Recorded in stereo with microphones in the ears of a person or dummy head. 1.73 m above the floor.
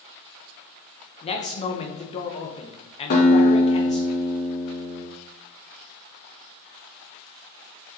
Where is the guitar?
55° left (ahead or behind), 3 m.